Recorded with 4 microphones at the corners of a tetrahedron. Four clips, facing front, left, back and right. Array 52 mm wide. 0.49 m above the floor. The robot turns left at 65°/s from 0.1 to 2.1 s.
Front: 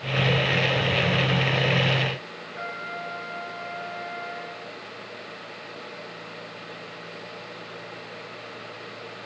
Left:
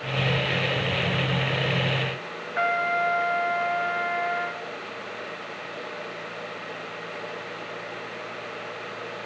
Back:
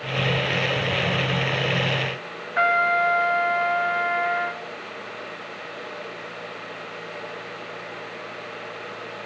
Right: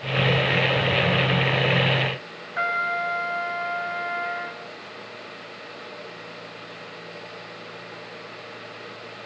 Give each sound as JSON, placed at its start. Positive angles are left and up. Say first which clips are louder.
{"t": 2.6, "sound": "a trumpet", "louder": "left 1 dB, back 15 dB", "azimuth_deg": 180, "distance_m": 1.4}